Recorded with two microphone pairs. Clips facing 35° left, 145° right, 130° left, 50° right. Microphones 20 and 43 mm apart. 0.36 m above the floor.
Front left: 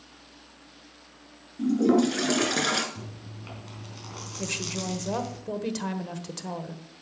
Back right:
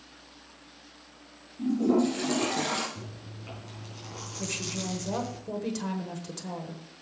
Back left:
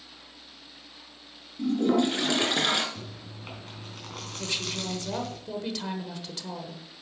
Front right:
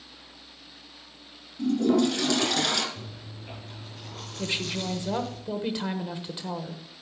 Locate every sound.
1.6 s a toilet flushing: 60° left, 1.8 m
3.0 s chewing: 100° left, 3.5 m
4.4 s a woman speaking: 10° right, 1.1 m